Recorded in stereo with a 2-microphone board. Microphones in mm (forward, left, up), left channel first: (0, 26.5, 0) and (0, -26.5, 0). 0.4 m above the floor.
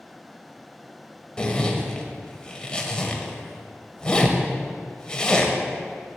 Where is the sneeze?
I don't hear a sneeze.